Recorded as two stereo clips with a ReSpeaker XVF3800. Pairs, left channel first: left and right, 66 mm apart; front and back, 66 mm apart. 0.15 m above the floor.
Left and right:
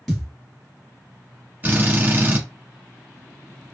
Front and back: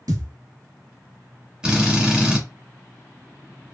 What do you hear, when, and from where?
0.1 s a thud: straight behind, 1.2 m
1.6 s a drill: 110° right, 1.1 m